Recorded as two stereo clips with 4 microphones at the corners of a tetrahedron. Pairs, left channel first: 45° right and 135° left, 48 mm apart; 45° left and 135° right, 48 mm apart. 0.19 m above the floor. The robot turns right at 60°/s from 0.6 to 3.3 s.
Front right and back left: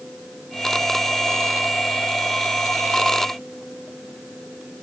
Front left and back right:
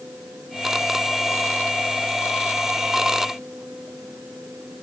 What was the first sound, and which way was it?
Only background noise.